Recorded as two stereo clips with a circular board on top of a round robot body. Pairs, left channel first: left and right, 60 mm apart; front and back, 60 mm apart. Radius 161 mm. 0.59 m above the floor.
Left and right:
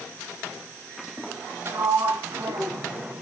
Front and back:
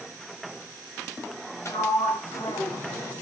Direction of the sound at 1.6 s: 45° right.